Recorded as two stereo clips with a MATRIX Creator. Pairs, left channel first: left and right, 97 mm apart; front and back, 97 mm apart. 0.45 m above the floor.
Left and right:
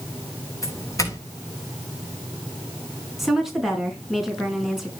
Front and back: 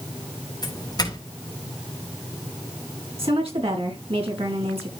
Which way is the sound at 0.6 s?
40° left.